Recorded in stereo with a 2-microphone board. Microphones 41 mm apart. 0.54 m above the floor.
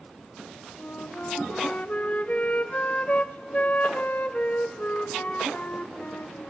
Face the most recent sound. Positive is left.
turn(degrees=35)  # may be behind; listen again after turning